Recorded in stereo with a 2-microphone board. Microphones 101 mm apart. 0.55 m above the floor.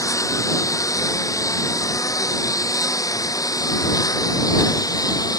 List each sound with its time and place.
0.0 s a lawn mower: 30° left (ahead or behind); by 5.4 s 35° left (ahead or behind)